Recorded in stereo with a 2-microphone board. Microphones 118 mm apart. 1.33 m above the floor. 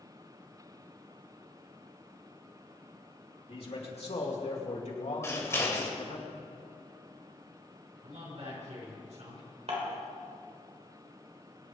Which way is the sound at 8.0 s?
85° right.